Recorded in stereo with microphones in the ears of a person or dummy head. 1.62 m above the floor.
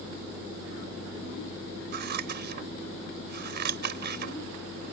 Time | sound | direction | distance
1.9 | scissors | 60° right (ahead or behind) | ?